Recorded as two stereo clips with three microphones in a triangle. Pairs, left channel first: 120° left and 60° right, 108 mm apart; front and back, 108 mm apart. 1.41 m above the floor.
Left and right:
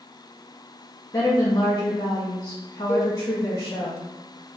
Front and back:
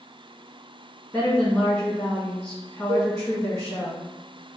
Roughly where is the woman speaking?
Left.